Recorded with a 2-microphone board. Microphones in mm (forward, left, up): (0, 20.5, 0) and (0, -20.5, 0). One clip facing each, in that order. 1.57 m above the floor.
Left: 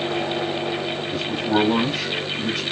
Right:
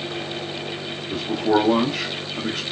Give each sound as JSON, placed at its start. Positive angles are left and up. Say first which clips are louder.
{"t": 1.1, "sound": "a man speaking", "louder": "right 3 dB", "side_deg": -70, "distance_m": 0.8}